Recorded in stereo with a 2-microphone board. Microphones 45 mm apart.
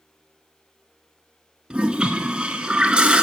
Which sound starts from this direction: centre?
A toilet flushing, at 1.7 s.